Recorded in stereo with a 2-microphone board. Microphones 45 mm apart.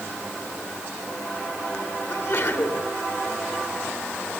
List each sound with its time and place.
2.1 s a sneeze: 65° left (ahead or behind), 5 m